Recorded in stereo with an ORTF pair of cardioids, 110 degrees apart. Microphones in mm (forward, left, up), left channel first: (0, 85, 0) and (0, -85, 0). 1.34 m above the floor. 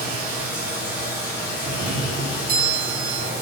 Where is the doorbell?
65° right, 0.8 m.